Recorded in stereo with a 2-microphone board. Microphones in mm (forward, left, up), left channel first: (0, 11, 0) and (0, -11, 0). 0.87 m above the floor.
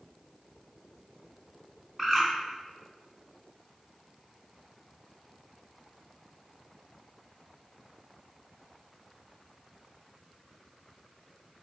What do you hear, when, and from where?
2.0 s a bird: centre (ahead or behind), 1.2 m